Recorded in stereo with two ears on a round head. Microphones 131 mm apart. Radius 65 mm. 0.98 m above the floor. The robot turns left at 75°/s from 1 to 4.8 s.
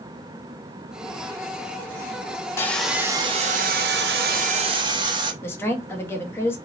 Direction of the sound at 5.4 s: 15° left (ahead or behind).